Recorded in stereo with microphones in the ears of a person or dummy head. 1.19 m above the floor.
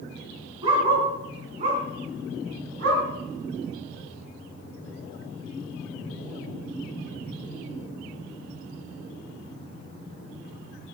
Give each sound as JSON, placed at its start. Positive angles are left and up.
{"t": 0.6, "sound": "a dog barking", "side_deg": -30, "distance_m": 4.5}